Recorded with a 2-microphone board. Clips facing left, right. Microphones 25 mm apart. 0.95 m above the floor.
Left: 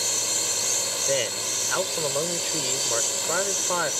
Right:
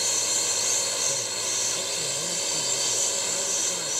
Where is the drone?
5° right (ahead or behind).